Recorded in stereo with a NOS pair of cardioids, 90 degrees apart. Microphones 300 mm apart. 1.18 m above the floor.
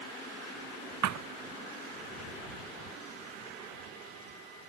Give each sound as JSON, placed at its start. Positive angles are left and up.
{"t": 1.0, "sound": "a thud", "azimuth_deg": -70}